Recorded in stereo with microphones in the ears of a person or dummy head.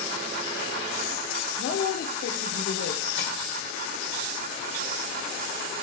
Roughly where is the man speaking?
Left.